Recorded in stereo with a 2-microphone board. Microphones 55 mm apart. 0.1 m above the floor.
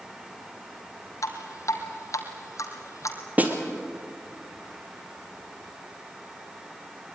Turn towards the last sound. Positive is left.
turn(degrees=-30)  # may be behind; listen again after turning